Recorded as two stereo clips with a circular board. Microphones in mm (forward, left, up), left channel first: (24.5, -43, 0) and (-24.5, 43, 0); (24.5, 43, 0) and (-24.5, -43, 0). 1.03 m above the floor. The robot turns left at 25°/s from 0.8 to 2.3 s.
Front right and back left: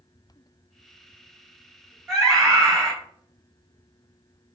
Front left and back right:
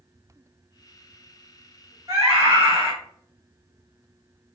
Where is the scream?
175° right, 1.1 m; by 2.9 s straight behind, 1.1 m.